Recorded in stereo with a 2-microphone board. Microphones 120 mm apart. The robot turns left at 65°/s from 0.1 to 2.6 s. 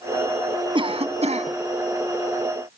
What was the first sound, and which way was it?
A cough, 50° right.